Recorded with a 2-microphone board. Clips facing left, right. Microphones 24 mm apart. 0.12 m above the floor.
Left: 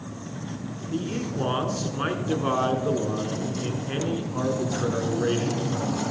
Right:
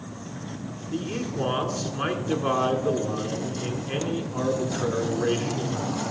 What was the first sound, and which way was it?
A man speaking, centre (ahead or behind).